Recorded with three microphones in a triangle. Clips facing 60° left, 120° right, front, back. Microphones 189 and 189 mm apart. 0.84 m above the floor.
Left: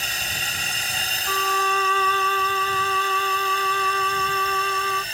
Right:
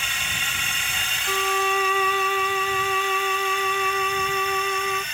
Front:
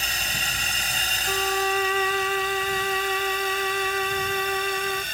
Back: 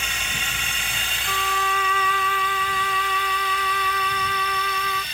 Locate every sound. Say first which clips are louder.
0.0 s a drone: left 1 dB, even; 30° left; by 5.1 s 15° left
1.3 s a violin: right 1 dB, front 3 dB; 45° right